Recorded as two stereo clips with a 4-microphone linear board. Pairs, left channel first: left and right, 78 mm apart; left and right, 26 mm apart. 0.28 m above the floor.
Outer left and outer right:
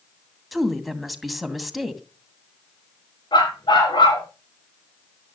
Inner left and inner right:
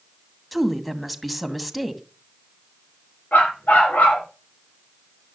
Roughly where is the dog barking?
Left.